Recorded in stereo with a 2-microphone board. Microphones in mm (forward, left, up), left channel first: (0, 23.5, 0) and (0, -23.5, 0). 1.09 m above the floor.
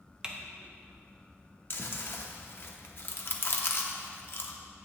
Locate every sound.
0.2 s typing on a keyboard: 15° right (ahead or behind), 0.9 m
1.7 s chewing: 50° left (ahead or behind), 0.8 m